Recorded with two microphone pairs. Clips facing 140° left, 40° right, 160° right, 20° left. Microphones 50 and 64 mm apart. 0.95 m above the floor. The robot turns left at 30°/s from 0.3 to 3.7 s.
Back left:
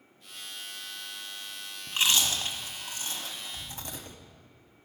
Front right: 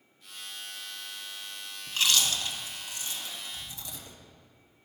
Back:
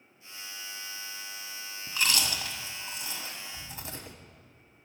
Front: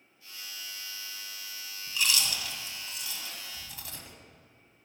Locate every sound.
1.9 s chewing: 165° right, 1.0 m; by 4.2 s 140° left, 1.0 m